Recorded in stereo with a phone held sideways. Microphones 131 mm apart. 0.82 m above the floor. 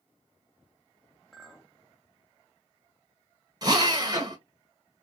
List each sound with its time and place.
1.3 s a clink: centre (ahead or behind), 0.8 m
3.6 s a drill: 35° right (ahead or behind), 1.1 m